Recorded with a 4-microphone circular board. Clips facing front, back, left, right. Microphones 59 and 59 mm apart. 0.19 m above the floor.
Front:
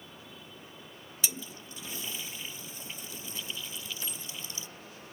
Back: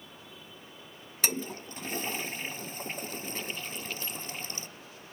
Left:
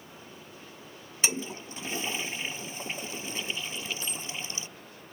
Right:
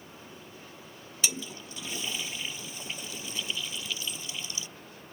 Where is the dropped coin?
70° left.